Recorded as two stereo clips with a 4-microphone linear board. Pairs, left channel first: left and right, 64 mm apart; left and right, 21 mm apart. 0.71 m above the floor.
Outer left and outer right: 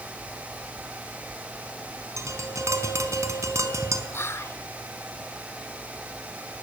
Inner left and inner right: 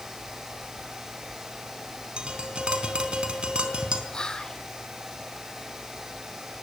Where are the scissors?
I don't hear scissors.